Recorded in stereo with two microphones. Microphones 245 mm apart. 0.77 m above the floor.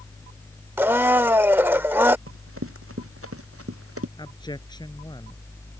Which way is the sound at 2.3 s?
60° right (ahead or behind).